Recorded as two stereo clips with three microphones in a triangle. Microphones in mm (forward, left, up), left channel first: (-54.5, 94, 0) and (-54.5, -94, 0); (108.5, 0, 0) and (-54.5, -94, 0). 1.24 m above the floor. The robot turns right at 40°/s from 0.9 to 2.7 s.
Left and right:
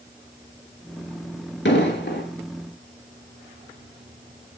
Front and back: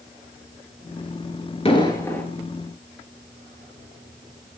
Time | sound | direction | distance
1.6 | an explosion | 85° left | 3.5 m